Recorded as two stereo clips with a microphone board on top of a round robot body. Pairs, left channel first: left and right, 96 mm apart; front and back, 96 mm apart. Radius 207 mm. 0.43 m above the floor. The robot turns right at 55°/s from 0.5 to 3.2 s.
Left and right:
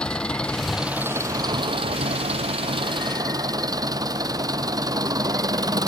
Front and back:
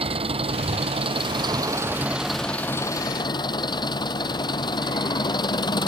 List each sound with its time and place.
0.0 s an engine running: 170° left; by 5.9 s 40° right